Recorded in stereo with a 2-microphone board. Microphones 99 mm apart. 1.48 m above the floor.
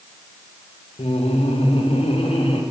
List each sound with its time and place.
1.0 s laughter: 85° left, 2.5 m